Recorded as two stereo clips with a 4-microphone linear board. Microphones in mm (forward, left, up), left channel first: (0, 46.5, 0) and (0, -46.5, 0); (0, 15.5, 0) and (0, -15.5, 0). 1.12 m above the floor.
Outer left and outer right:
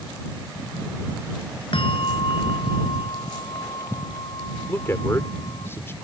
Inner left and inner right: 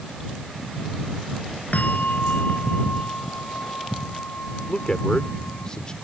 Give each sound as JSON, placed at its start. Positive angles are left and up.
{"t": 1.7, "sound": "a bell", "side_deg": 65}
{"t": 4.7, "sound": "a man speaking", "side_deg": 25}